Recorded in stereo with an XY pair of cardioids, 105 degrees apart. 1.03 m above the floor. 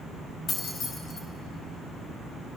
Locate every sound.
0.5 s keys jangling: 50° left, 4.5 m